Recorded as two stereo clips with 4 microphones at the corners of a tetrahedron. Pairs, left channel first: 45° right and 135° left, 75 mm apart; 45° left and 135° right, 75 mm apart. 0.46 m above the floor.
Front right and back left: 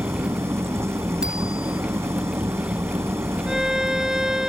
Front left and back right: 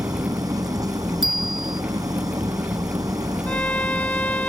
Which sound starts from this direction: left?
A violin, at 3.5 s.